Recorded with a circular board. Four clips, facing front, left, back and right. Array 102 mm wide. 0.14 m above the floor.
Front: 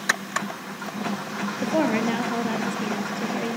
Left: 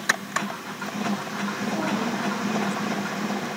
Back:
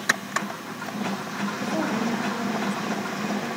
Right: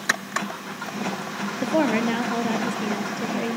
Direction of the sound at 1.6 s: 60° right.